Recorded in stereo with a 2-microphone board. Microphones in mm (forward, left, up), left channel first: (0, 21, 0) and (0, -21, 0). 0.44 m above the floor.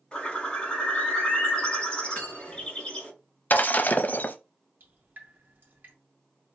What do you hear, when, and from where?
0.1 s a bird: 25° left (ahead or behind), 3.5 m
2.1 s cutlery clinking: 40° left (ahead or behind), 3.5 m
3.5 s breaking glass: 45° left (ahead or behind), 0.6 m
4.8 s dripping: 55° right (ahead or behind), 2.5 m